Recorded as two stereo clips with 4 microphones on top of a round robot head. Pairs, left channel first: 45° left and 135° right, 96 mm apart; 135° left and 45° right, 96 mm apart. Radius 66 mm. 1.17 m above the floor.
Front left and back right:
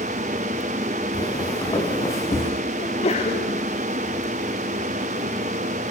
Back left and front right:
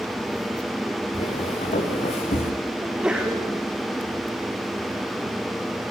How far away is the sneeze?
About 4 m.